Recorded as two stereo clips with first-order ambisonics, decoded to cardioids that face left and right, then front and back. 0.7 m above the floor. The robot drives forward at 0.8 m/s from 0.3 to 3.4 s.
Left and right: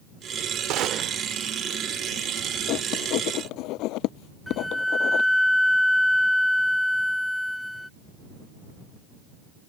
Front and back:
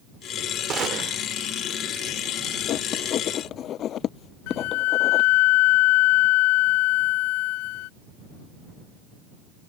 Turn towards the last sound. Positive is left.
turn(degrees=5)